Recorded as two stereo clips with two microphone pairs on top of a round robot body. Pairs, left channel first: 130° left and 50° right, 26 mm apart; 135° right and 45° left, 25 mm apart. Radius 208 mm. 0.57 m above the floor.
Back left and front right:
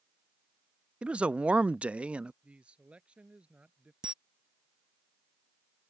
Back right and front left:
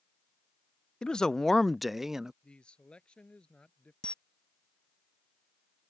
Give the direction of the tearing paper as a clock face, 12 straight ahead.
No tearing paper in this recording.